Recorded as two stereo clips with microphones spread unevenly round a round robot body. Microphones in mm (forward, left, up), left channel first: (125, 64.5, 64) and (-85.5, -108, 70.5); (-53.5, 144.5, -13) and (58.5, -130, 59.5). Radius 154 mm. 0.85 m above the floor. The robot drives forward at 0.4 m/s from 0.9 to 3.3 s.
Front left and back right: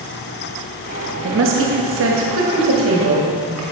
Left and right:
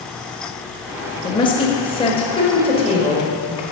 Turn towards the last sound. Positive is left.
turn(degrees=180)